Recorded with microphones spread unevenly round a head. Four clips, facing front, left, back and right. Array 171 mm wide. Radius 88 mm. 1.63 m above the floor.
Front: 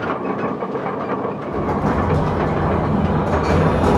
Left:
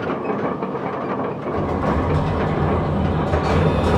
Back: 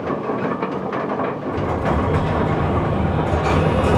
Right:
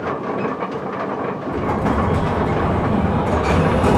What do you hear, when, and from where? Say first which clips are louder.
1.5 s an explosion: right 2 dB, front 3 dB; 50° right, 0.6 m